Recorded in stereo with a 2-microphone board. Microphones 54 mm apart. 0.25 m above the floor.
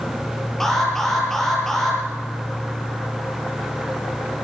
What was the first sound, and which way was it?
An alarm, 5° left (ahead or behind).